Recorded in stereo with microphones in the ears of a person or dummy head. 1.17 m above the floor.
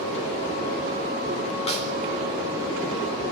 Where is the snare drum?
35° left (ahead or behind), 4 m.